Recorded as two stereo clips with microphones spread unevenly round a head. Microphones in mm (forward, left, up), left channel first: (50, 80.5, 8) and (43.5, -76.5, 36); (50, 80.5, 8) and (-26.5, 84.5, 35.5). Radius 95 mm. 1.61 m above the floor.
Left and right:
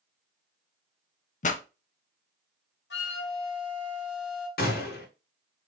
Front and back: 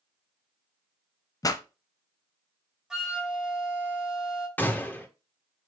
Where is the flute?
110° left, 1.7 m.